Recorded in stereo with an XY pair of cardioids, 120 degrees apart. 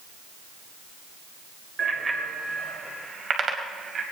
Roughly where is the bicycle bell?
Ahead.